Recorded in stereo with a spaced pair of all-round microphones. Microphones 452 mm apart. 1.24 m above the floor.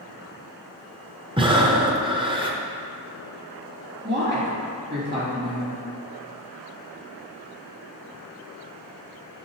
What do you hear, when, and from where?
1.4 s breathing: 10° right (ahead or behind), 0.5 m
4.0 s a woman speaking: 25° right (ahead or behind), 2 m